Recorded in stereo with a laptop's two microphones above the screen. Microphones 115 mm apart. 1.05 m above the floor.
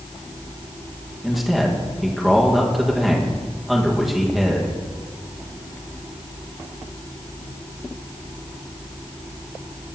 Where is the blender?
No blender in this recording.